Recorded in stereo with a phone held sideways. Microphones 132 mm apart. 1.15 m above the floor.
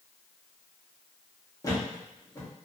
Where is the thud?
25° left (ahead or behind), 0.8 m.